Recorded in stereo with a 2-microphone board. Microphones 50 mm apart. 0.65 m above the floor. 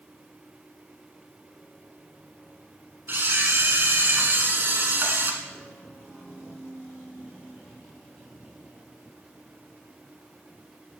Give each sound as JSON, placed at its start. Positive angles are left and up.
{"t": 3.1, "sound": "a camera shutter", "side_deg": -50, "distance_m": 1.1}